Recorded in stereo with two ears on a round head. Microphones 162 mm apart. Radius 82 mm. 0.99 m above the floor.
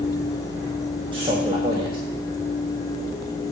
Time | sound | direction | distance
1.1 | a man speaking | 25° right (ahead or behind) | 1.2 m